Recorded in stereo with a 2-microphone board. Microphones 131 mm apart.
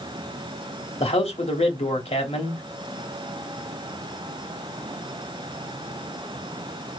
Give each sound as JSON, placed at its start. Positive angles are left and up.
{"t": 1.0, "sound": "a man speaking", "side_deg": 50, "distance_m": 1.3}